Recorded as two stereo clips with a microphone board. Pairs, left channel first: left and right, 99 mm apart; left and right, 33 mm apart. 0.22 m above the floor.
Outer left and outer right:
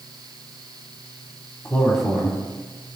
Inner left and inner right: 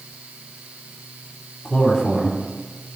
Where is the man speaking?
15° left (ahead or behind), 1.4 m; by 3.0 s 20° right (ahead or behind), 2 m.